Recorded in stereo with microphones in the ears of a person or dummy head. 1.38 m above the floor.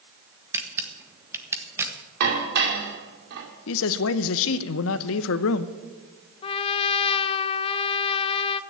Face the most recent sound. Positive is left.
turn(degrees=30)  # may be behind; listen again after turning